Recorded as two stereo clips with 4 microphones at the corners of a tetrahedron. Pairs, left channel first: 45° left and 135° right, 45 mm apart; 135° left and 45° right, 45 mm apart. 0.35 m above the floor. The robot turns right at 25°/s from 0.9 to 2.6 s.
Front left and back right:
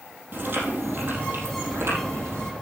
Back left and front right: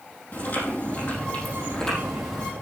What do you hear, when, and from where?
0.3 s chewing: straight behind, 4 m; by 2.5 s 140° right, 4 m